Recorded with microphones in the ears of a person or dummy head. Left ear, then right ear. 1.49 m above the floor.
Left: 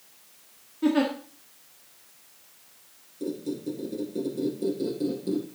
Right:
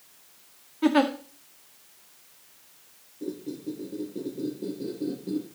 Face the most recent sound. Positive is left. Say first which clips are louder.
# left 3 dB
turn(degrees=80)